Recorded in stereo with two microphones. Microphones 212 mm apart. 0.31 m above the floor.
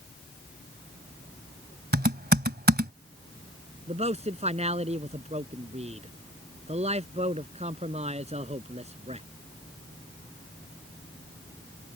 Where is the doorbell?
No doorbell in this recording.